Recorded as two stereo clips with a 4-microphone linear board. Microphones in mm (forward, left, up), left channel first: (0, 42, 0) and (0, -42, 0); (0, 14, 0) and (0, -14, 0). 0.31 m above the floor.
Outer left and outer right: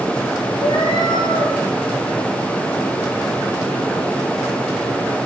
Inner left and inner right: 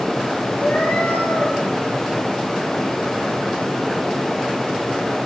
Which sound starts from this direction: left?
A cat meowing, at 0.6 s.